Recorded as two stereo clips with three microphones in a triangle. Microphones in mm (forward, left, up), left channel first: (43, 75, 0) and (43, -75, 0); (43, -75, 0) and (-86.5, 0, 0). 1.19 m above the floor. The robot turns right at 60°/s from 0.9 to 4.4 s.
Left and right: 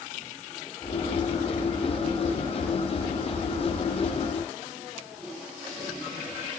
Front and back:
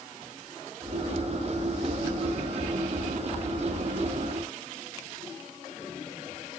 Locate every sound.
Only background noise.